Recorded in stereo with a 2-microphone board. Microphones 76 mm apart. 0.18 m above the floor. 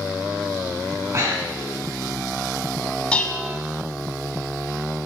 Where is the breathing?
45° right (ahead or behind), 1.3 m.